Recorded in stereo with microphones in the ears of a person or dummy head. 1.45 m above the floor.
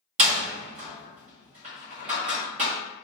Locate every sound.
0.2 s a door slam: 40° right (ahead or behind), 0.8 m